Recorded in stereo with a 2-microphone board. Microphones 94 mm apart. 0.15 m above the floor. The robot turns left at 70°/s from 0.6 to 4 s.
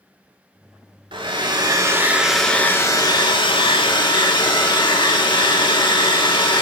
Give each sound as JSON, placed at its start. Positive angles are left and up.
{"t": 1.1, "sound": "a hair dryer", "azimuth_deg": -95, "distance_m": 0.5}